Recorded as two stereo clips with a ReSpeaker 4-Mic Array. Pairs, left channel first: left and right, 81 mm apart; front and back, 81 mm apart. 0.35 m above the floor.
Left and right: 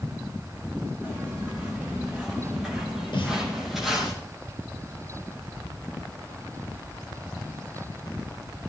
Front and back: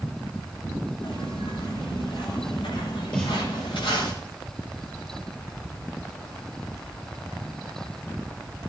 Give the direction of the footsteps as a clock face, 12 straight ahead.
12 o'clock.